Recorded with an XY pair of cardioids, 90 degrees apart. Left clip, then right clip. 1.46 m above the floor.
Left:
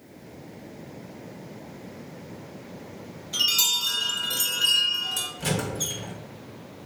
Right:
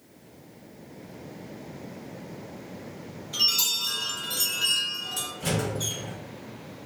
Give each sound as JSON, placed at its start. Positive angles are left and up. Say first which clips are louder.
{"t": 3.3, "sound": "a chime", "louder": "left 2 dB", "azimuth_deg": 35, "distance_m": 1.5}
{"t": 5.4, "sound": "a squeak", "louder": "even", "azimuth_deg": 55, "distance_m": 1.5}